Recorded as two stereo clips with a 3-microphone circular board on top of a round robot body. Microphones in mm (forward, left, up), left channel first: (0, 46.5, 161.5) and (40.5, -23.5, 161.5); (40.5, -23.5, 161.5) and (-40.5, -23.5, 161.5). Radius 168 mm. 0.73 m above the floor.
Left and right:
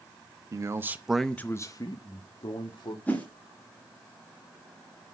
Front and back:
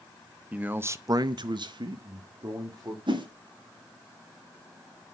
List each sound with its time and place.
0.5 s a man speaking: 105° right, 1.1 m; by 3.0 s 130° left, 2 m
3.1 s a whoosh: 170° right, 1.9 m